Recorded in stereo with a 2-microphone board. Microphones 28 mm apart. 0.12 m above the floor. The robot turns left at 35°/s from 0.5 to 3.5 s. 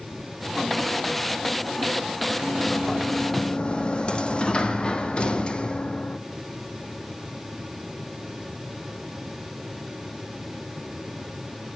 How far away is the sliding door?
About 1.1 m.